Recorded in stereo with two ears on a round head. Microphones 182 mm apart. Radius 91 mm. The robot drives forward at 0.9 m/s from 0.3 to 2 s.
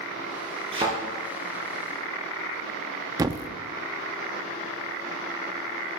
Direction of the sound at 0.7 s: 25° right (ahead or behind).